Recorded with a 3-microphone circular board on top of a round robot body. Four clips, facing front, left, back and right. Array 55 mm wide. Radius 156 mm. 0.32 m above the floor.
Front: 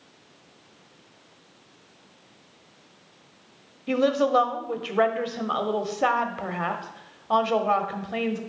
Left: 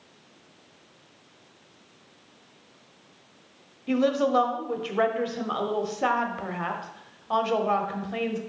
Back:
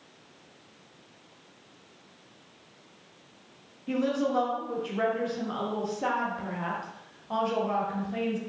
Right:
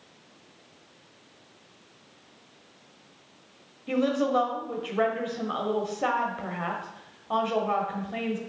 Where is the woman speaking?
20° left, 1.1 m.